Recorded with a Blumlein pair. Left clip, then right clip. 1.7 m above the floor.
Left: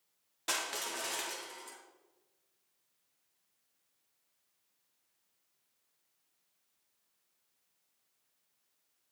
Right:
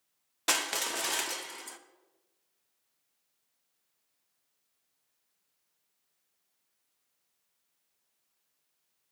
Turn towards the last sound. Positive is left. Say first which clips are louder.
# right 6 dB
turn(degrees=-25)